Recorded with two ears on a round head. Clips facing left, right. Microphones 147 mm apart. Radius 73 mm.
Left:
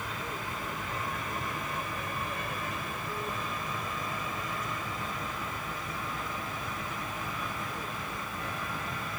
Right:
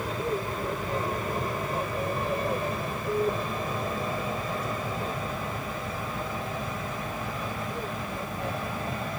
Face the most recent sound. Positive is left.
turn(degrees=-25)  # may be behind; listen again after turning